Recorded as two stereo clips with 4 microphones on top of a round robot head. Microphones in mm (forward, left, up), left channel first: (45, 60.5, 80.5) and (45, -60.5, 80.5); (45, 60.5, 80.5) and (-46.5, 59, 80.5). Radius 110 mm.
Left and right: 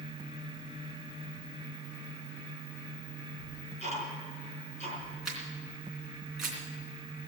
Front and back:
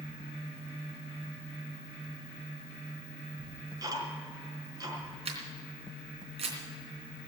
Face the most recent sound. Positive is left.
turn(degrees=180)